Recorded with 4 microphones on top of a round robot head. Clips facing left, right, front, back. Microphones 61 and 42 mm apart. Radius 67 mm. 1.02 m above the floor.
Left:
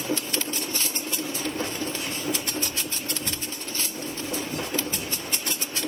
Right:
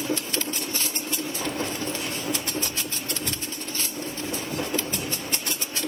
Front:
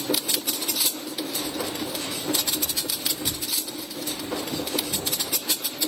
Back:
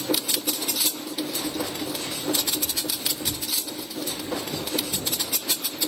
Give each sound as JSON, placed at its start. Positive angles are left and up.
{"t": 1.4, "sound": "keys jangling", "azimuth_deg": -90, "distance_m": 0.8}